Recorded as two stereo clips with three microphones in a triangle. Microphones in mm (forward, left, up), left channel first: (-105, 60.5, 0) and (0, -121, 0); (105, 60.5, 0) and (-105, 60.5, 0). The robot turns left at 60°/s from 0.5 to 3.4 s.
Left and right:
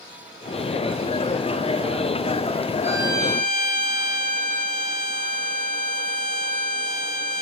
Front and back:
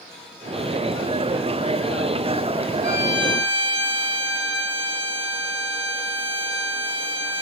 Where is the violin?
20° left, 2.5 m; by 7.4 s 15° right, 2.5 m.